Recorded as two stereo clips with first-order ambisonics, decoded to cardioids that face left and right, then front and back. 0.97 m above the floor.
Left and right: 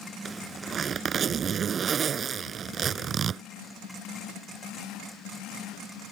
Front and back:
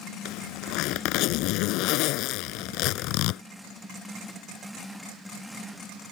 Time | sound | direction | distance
0.2 | a zipper | 25° right | ?